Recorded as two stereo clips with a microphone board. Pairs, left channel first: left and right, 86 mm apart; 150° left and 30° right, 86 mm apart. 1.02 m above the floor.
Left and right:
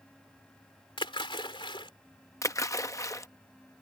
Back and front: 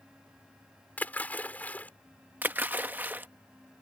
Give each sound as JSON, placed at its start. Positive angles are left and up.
{"t": 1.0, "sound": "a splash", "azimuth_deg": 80}
{"t": 2.4, "sound": "a splash", "azimuth_deg": 40}